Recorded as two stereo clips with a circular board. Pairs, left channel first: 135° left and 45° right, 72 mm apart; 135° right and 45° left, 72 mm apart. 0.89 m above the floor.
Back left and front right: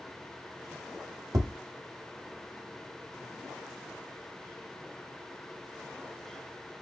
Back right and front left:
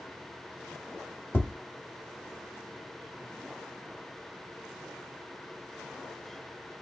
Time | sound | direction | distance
1.3 | tapping | 75° right | 1.6 m